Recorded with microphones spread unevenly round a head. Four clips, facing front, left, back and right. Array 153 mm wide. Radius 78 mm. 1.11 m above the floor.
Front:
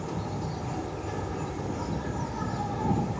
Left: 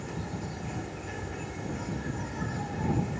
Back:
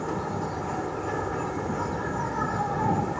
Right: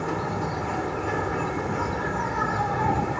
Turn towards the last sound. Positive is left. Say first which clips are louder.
# right 10 dB, back 4 dB
turn(degrees=-120)